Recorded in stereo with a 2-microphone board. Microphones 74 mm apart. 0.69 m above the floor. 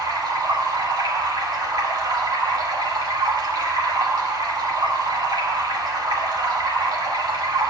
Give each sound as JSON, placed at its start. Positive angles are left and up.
{"t": 0.0, "sound": "running water", "side_deg": -70, "distance_m": 1.8}